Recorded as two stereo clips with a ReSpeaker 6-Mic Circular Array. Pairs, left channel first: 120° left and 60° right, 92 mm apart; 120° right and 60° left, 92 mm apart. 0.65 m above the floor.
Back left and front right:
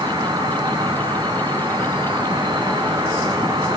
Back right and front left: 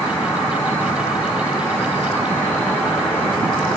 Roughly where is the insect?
Ahead right.